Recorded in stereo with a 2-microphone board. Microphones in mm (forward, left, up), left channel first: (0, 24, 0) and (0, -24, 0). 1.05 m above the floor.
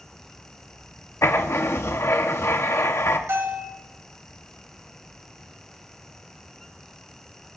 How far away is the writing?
About 1.2 m.